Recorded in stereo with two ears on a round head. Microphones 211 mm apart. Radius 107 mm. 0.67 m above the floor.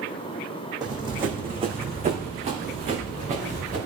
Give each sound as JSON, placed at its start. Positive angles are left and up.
{"t": 0.8, "sound": "running footsteps", "side_deg": -20, "distance_m": 1.5}